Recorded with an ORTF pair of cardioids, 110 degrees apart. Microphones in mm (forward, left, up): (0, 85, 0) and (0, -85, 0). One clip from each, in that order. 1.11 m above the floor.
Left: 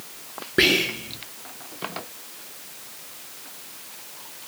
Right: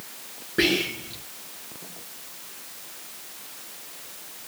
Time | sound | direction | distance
0.6 | whispering | 30° left | 0.8 m